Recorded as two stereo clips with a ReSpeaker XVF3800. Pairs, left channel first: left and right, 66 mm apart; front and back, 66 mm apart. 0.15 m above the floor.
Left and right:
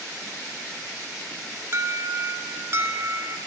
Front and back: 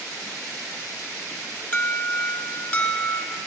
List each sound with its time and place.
1.7 s an alarm: 55° right, 2.5 m